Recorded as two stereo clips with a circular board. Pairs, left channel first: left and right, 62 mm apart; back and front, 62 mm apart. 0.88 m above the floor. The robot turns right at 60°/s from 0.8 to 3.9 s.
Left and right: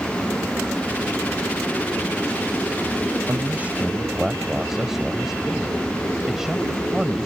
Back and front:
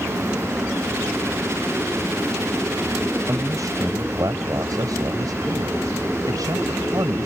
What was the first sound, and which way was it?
A man speaking, 45° right.